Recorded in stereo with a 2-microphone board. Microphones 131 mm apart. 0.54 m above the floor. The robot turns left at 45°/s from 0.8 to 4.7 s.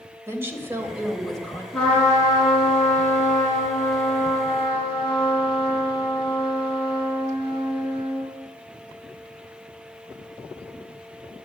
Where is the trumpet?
175° left, 5 m; by 8.3 s 40° left, 5 m.